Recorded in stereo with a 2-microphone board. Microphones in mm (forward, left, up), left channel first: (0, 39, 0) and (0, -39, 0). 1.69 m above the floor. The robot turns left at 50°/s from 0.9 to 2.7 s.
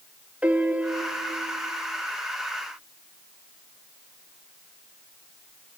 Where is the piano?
20° right, 0.7 m; by 1.7 s 60° right, 0.7 m.